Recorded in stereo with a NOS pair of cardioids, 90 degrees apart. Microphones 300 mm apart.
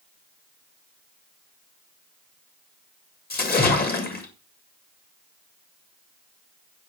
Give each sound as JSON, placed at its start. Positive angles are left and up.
{"t": 3.3, "sound": "a splash", "azimuth_deg": 30, "distance_m": 1.8}